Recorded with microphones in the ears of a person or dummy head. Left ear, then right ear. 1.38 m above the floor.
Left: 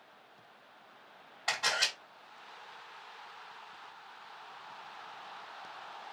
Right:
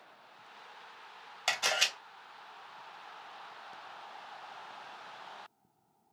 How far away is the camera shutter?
About 1.3 m.